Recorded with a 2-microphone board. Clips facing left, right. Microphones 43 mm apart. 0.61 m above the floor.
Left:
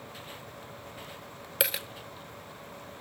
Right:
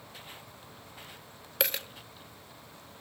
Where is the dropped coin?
5° left (ahead or behind), 0.8 m.